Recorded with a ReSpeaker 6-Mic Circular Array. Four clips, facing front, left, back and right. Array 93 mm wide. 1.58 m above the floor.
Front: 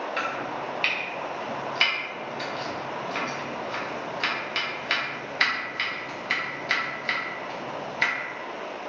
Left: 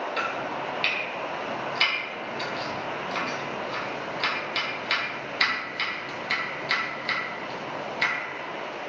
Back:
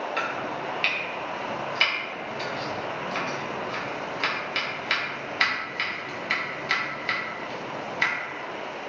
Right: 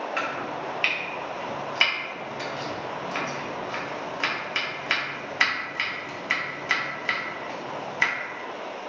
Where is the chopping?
90° right, 0.7 m.